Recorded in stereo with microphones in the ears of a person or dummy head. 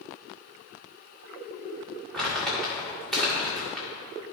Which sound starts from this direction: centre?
Crumpling, at 2.1 s.